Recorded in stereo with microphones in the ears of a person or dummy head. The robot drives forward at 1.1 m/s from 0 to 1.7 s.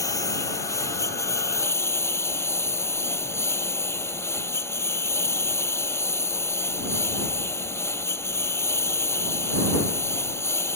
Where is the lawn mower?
15° left (ahead or behind); by 10.8 s 10° left (ahead or behind).